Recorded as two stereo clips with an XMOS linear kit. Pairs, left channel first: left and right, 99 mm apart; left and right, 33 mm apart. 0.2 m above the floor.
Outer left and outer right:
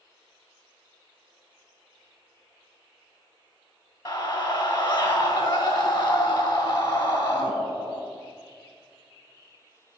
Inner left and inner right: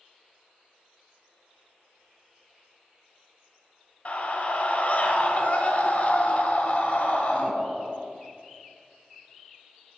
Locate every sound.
4.0 s a scream: 30° left (ahead or behind), 1.4 m